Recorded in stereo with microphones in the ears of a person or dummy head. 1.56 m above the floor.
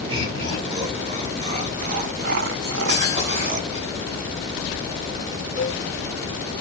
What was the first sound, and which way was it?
Laughter, 30° right (ahead or behind).